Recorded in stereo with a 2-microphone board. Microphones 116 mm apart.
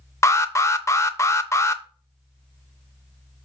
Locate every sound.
0.2 s an alarm: 25° left (ahead or behind), 0.5 m